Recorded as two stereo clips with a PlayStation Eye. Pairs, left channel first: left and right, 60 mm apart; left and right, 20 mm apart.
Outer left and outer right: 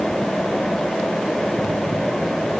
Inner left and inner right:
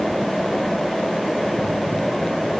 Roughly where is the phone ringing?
No phone ringing in this recording.